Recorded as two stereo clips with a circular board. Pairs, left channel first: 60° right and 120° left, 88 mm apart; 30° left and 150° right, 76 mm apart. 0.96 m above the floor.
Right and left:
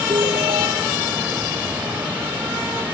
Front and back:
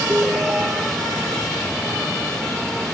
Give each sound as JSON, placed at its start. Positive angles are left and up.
{"t": 0.1, "sound": "a ringtone", "azimuth_deg": 140}